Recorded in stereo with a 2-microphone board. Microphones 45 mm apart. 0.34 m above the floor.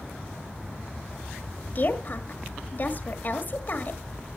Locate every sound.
1.8 s a woman speaking: 40° left (ahead or behind), 1.4 m